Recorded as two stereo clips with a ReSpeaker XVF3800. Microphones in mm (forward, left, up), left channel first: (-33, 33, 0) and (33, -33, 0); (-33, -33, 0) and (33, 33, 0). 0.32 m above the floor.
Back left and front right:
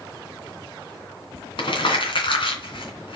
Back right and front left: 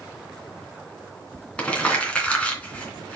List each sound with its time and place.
1.6 s crumpling: 150° left, 2.5 m